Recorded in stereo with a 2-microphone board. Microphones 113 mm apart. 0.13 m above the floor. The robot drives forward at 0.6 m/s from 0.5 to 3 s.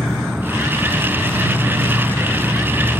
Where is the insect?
5° right (ahead or behind).